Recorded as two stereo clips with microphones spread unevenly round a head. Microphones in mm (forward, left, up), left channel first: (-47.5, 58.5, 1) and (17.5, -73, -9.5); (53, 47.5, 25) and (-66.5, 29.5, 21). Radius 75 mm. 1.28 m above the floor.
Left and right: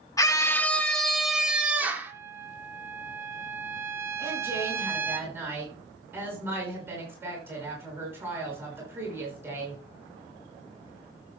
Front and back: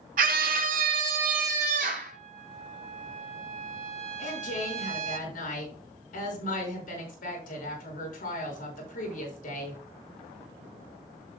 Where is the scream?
175° right, 2 m; by 2.1 s 140° right, 3 m.